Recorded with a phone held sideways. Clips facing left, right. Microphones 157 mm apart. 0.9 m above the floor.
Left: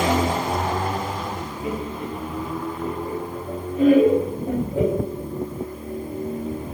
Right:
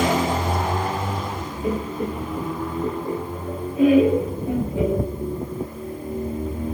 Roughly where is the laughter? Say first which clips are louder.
Right 4 dB; right.